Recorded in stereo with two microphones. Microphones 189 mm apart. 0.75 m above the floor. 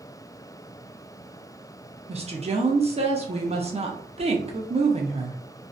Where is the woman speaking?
35° right (ahead or behind), 0.5 m.